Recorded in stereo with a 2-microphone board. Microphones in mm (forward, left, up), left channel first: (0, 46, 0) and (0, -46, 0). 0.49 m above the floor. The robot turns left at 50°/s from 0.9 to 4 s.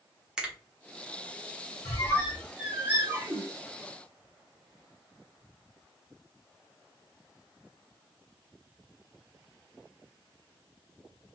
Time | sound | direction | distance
0.4 | a finger snap | 5° right (ahead or behind) | 1.0 m
1.9 | a squeak | 40° left (ahead or behind) | 1.5 m